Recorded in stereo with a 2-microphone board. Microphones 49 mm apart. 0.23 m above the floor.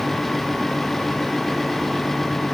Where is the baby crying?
No baby crying in this recording.